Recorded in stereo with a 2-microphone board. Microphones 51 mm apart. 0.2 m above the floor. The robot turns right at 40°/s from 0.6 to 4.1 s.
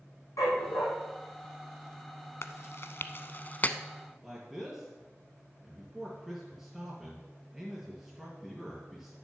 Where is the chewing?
55° left (ahead or behind), 0.6 m; by 3.8 s 30° left (ahead or behind), 0.6 m.